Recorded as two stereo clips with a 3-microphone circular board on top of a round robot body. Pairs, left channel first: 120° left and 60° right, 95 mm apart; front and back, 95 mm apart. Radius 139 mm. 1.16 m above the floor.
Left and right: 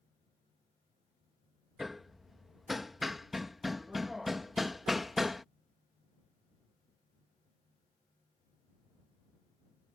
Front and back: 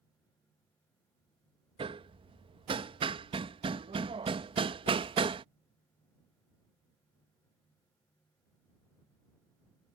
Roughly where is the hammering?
Behind right.